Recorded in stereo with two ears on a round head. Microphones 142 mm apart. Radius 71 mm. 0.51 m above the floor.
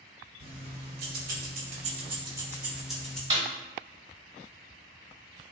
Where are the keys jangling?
65° right (ahead or behind), 1.1 m; by 3.2 s 5° left (ahead or behind), 0.9 m.